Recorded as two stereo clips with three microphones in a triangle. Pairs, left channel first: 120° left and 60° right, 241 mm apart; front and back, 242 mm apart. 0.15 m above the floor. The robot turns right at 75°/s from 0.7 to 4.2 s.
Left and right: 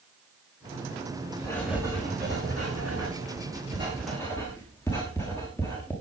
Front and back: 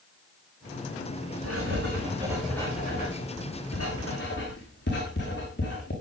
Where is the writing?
165° right, 5.5 m; by 5.9 s 40° left, 5.5 m.